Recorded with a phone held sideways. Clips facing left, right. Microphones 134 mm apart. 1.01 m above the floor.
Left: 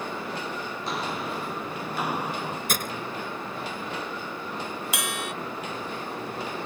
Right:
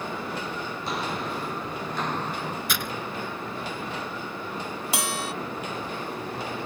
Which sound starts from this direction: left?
Breaking glass, at 2.7 s.